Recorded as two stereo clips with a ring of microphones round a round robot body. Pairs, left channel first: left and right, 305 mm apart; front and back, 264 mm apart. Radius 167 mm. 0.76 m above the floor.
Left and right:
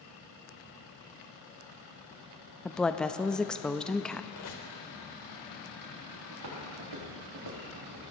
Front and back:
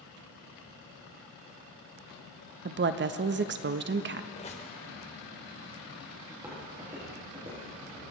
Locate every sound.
2.6 s a woman speaking: 175° left, 0.7 m
4.3 s a squeak: 65° left, 2.5 m
6.3 s footsteps: 100° right, 5 m; by 8.0 s 105° right, 4.5 m